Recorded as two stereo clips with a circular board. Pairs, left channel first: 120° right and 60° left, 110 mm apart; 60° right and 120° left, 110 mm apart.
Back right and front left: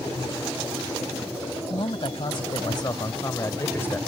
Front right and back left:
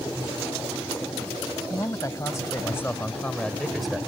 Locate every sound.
1.7 s a man speaking: 105° right; by 4.0 s 160° right